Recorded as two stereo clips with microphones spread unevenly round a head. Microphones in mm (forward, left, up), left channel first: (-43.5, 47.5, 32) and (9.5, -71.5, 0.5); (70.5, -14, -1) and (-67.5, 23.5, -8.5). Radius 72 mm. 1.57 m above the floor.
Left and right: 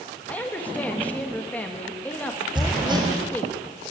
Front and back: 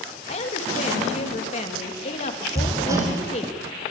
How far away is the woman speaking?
About 3 m.